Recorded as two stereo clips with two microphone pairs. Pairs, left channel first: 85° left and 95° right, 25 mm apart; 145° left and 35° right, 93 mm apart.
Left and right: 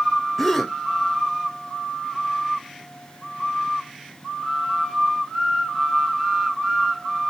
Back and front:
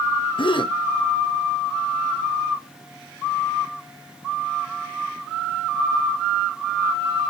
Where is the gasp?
170° left, 1.3 m.